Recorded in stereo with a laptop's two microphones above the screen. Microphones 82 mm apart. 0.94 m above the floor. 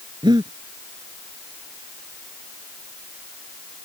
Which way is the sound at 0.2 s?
65° right (ahead or behind).